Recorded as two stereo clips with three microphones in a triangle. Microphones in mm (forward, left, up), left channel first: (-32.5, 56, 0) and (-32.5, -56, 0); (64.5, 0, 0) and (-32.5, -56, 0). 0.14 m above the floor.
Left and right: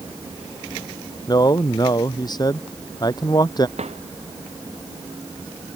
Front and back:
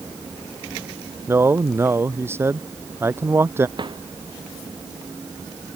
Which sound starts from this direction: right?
A drawer, at 3.8 s.